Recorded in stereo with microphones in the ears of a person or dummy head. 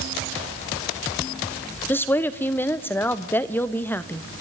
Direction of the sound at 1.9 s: 10° left (ahead or behind).